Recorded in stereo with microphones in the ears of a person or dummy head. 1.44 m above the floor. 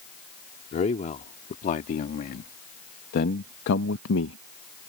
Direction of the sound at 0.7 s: 35° left (ahead or behind).